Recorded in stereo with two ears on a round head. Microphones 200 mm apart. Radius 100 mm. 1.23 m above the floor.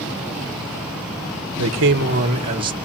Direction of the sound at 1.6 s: 70° right (ahead or behind).